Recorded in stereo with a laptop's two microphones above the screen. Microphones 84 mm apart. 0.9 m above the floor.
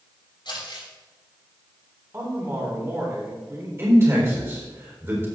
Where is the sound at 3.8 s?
30° right (ahead or behind), 4 m.